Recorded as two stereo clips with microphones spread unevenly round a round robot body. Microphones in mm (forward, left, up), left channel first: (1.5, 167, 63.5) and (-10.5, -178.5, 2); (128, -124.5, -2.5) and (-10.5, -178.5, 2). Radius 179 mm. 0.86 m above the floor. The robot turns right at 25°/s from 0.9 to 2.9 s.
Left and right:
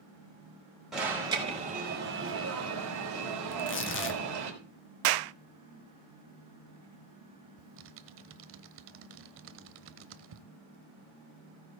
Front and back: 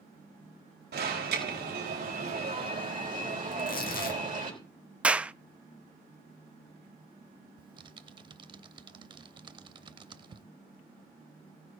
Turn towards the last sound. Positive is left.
turn(degrees=-140)